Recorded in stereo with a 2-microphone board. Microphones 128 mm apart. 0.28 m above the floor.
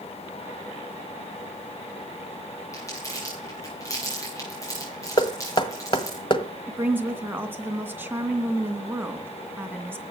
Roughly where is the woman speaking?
Centre.